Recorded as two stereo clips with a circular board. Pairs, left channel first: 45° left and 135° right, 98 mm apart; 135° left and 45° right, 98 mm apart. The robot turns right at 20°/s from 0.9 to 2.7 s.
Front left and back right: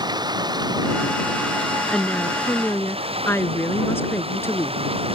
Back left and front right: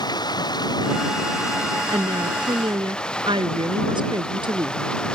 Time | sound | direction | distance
0.0 | running water | straight behind | ?
1.9 | a woman speaking | 35° right | ?